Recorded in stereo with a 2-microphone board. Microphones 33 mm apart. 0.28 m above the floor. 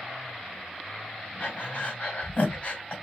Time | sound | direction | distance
1.4 | breathing | 40° left (ahead or behind) | 1.8 m